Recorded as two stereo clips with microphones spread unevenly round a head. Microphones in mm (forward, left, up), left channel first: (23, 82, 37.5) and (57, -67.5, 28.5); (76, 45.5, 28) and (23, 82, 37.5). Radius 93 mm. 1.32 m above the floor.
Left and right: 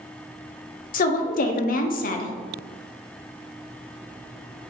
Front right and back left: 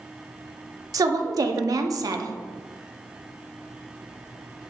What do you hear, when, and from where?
0.9 s a woman speaking: 130° left, 0.5 m